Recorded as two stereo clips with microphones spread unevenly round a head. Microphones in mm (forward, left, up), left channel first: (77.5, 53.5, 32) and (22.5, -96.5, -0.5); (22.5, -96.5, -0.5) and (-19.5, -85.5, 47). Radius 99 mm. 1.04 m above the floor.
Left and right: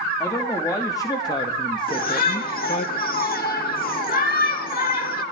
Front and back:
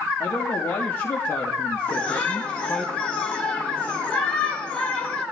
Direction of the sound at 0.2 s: 5° right.